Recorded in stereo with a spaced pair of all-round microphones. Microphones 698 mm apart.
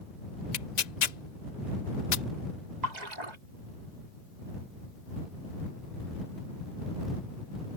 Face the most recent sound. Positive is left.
turn(degrees=-75)  # may be behind; listen again after turning